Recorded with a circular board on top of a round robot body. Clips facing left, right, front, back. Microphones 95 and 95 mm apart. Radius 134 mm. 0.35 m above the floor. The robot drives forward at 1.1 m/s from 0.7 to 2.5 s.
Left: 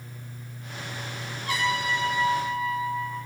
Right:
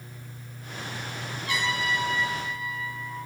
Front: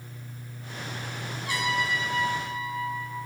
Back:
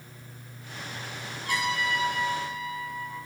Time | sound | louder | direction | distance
1.4 | a trumpet | left 2 dB, even | 140° left | 3.5 m